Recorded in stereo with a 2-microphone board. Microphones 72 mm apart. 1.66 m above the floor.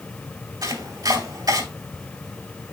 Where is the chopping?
55° right (ahead or behind), 2.5 m.